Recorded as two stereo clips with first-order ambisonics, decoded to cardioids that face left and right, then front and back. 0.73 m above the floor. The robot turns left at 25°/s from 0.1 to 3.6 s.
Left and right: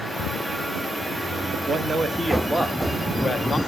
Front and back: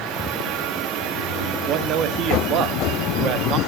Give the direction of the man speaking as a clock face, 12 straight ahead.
5 o'clock.